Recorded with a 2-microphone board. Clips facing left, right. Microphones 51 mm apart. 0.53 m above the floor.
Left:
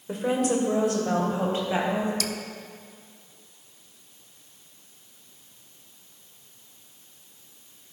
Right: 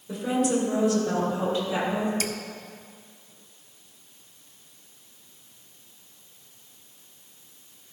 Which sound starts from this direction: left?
A woman speaking, at 0.1 s.